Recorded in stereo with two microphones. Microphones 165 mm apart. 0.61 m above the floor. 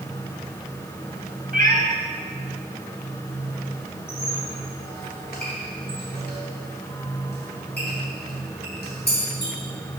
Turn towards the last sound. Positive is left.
turn(degrees=80)